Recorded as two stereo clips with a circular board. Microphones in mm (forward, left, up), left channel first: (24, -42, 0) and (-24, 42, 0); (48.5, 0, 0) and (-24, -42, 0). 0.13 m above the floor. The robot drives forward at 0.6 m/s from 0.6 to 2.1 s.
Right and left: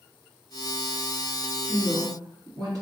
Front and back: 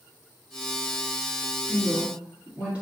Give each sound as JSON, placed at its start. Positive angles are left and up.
{"t": 1.6, "sound": "a woman speaking", "azimuth_deg": 135, "distance_m": 1.8}